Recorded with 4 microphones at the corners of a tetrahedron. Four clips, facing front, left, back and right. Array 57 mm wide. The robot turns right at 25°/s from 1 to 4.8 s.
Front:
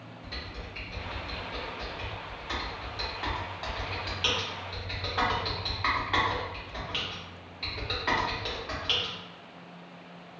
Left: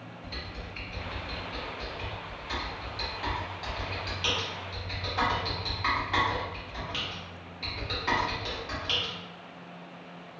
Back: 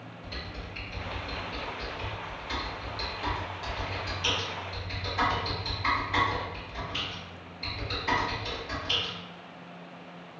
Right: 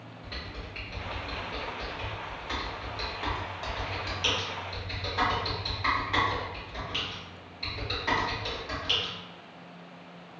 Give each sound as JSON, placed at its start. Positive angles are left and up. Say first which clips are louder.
{"t": 0.2, "sound": "typing on a keyboard", "louder": "even, even", "azimuth_deg": -95, "distance_m": 1.3}